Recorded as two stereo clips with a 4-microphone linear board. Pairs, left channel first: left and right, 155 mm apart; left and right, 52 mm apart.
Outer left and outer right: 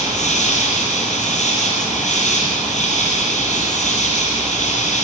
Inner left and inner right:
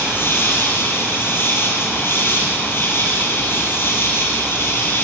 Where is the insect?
55° left (ahead or behind), 5 m.